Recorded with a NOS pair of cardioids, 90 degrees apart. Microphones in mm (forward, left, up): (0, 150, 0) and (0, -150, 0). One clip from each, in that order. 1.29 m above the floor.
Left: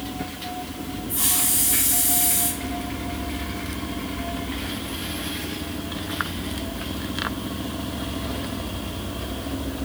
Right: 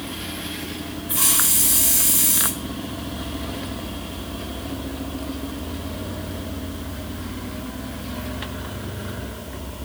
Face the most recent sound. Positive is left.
turn(degrees=-60)